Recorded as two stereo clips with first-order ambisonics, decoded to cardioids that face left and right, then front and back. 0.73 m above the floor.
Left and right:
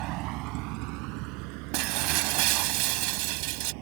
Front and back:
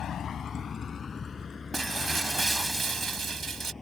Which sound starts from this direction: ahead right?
A vehicle, at 0.0 s.